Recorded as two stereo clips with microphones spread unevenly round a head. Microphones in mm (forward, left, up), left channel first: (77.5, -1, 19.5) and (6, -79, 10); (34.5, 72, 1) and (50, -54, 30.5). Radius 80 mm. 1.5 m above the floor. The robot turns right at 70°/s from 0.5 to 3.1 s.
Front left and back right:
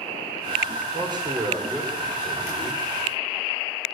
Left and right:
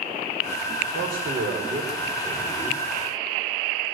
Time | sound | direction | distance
0.9 | a man speaking | 100° right | 5 m